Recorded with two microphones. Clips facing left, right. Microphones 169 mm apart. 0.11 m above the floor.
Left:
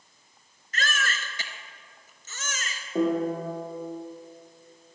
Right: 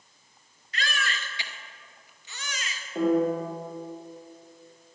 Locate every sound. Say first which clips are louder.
0.7 s a baby crying: left 1 dB; 45° left (ahead or behind), 1.2 m
3.0 s a piano: right 2 dB; 60° left (ahead or behind), 4.5 m